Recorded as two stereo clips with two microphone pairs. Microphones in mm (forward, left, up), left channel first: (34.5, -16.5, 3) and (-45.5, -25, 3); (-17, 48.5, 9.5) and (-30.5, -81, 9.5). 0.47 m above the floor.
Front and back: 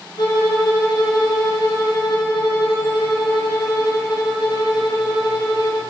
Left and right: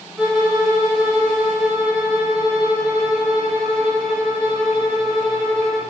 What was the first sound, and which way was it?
A violin, 5° right.